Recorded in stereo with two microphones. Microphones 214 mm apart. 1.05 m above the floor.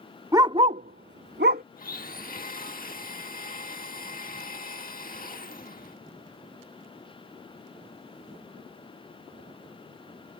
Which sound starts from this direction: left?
A blender, at 1.8 s.